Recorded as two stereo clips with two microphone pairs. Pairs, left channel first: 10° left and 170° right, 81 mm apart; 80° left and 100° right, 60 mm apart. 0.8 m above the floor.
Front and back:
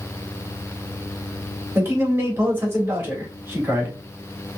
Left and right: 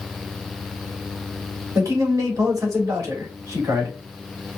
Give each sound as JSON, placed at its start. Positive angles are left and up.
{"t": 1.8, "sound": "a man speaking", "azimuth_deg": -110, "distance_m": 3.0}